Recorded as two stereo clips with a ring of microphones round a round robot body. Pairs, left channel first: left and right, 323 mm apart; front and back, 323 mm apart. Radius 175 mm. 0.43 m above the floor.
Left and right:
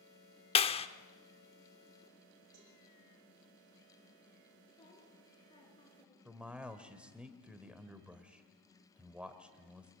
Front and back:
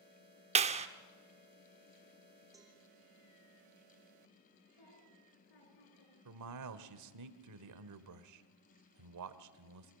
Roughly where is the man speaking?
Behind.